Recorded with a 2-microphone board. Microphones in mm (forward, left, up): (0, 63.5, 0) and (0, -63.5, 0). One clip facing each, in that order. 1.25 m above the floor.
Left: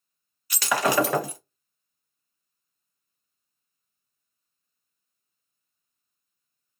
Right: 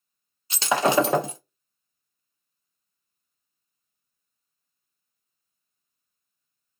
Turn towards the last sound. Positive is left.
turn(degrees=-25)  # may be behind; listen again after turning